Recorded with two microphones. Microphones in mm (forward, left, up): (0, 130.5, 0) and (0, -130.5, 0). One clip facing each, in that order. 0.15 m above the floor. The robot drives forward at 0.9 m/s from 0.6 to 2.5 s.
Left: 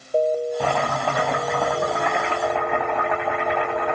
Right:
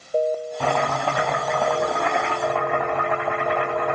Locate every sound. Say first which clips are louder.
0.6 s chopping: even; 10° left (ahead or behind), 1.9 m; by 4.0 s 5° left (ahead or behind), 3.5 m